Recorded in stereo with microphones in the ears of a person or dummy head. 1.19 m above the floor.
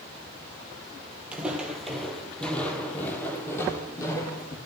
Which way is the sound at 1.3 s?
10° right (ahead or behind).